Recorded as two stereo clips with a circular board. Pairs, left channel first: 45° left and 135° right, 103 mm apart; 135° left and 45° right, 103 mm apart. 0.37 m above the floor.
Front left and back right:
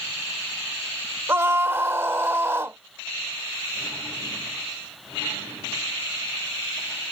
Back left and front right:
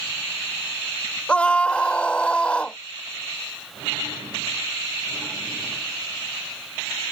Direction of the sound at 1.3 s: 165° right.